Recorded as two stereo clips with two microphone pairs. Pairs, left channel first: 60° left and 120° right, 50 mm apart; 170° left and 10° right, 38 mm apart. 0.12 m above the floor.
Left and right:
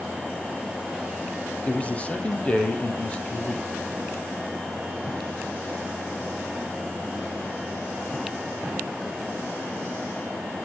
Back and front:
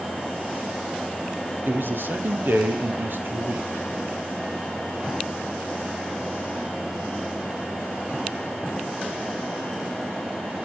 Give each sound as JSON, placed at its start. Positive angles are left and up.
{"t": 1.6, "sound": "a man speaking", "azimuth_deg": -5, "distance_m": 4.0}